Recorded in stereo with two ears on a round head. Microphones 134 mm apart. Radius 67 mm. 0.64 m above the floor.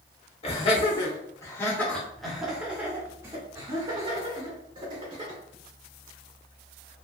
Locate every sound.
0.4 s laughter: 40° left (ahead or behind), 1.4 m; by 5.4 s 40° right (ahead or behind), 2.5 m